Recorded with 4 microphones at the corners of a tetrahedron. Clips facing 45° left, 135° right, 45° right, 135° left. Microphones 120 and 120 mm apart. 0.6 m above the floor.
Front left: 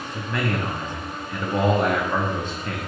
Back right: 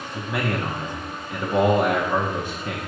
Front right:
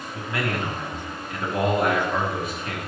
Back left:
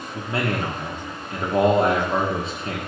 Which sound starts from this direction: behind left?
A man speaking, at 0.1 s.